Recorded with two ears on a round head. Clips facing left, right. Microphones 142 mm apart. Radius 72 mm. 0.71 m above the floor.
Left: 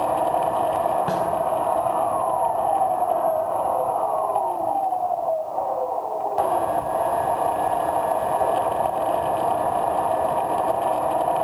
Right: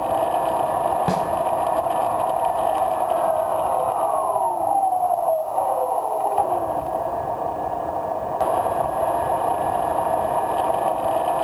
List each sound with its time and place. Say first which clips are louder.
1.1 s a snare drum: right 1 dB; 20° right (ahead or behind), 4 m